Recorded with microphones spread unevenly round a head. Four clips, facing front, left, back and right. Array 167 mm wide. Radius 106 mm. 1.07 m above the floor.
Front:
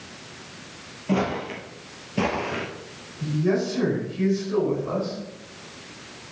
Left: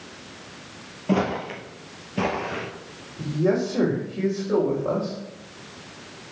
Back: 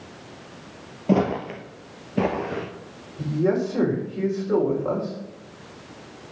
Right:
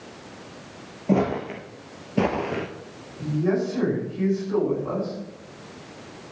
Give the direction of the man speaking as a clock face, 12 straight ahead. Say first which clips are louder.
Left 1 dB, back 1 dB; 7 o'clock.